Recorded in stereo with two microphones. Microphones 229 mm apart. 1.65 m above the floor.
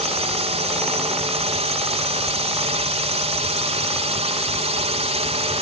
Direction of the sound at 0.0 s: 25° right (ahead or behind).